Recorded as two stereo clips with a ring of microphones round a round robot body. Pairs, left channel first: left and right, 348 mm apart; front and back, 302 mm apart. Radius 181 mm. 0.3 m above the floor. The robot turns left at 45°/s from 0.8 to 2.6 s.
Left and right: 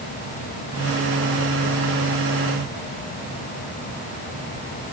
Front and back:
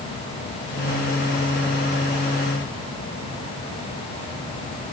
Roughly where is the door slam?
I don't hear a door slam.